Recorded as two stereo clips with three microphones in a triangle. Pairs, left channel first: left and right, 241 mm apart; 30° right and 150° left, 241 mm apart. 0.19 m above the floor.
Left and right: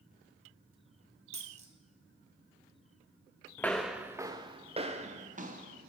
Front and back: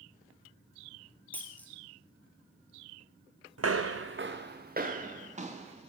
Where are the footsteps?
170° left, 0.7 m; by 5.9 s 145° right, 1.7 m.